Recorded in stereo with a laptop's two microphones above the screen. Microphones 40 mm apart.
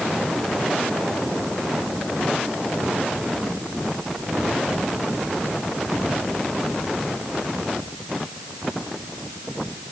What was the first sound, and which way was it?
Only background noise.